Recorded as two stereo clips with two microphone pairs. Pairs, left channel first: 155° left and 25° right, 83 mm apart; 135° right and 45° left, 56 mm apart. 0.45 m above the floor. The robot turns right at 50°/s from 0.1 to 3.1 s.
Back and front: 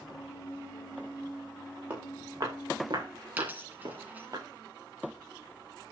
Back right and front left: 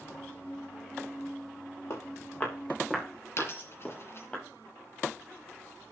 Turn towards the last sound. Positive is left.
turn(degrees=-90)